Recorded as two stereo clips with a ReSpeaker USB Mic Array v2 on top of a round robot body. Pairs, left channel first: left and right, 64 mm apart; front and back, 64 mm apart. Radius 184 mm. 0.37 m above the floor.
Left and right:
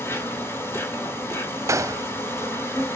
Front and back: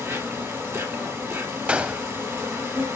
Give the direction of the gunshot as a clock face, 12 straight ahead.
4 o'clock.